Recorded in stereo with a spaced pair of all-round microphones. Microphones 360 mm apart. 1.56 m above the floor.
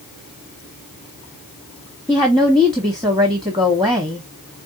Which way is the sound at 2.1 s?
10° right (ahead or behind).